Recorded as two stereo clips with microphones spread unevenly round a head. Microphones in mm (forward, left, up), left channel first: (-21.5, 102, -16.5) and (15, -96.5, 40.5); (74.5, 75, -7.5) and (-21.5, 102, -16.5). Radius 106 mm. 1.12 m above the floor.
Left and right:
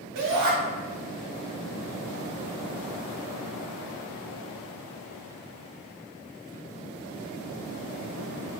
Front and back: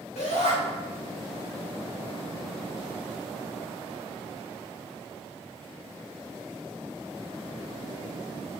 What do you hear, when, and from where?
0.1 s a shout: 45° right, 2.5 m